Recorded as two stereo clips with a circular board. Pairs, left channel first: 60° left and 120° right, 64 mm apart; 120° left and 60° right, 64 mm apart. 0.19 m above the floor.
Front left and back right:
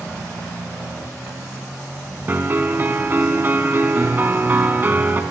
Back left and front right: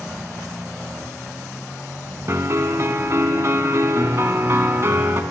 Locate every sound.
2.3 s a piano: 75° right, 0.6 m